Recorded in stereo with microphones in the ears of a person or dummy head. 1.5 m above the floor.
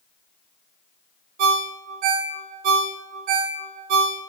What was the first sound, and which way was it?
A ringtone, 45° right (ahead or behind).